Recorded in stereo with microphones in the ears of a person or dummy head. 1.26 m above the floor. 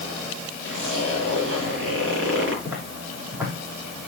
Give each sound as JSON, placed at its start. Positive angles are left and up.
{"t": 0.6, "sound": "a zipper", "side_deg": -75, "distance_m": 4.5}
{"t": 2.6, "sound": "footsteps", "side_deg": -20, "distance_m": 3.0}